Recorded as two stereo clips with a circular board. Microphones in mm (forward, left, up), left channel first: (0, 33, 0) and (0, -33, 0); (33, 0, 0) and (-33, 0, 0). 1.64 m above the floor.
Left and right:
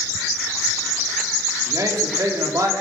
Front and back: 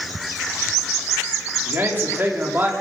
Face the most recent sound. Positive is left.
turn(degrees=-125)